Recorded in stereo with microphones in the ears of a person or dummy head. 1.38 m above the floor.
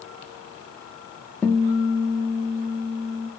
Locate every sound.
1.4 s a guitar: 10° left (ahead or behind), 0.6 m